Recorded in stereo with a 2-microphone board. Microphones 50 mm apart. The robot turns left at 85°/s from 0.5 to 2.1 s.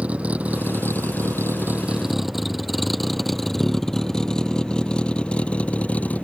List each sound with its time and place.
0.0 s a vehicle: 30° right (ahead or behind); by 6.2 s 35° left (ahead or behind)